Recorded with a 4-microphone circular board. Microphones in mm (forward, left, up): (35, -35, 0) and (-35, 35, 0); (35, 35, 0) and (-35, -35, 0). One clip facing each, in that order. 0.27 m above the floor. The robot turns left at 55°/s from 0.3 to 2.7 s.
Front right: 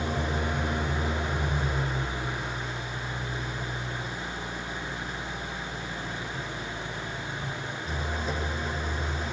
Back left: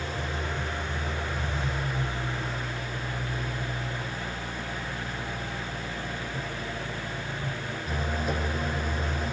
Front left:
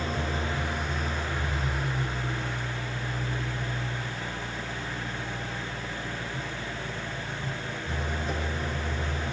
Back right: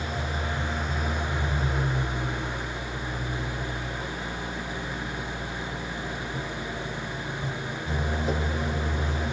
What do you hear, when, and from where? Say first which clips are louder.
0.0 s an engine running: front right 3 dB, front left 1 dB; 10° right, 10 m; by 9.3 s 140° right, 10 m